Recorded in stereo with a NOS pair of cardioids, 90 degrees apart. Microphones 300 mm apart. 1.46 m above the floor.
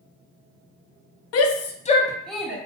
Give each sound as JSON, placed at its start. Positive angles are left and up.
{"t": 1.3, "sound": "a shout", "azimuth_deg": 60, "distance_m": 0.6}